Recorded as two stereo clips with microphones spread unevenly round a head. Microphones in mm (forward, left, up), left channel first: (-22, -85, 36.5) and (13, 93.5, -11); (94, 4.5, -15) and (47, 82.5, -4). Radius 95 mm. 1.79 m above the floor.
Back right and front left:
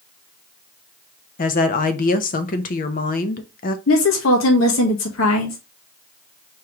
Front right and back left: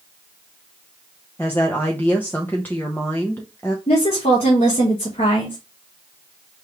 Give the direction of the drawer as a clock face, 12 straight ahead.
No drawer in this recording.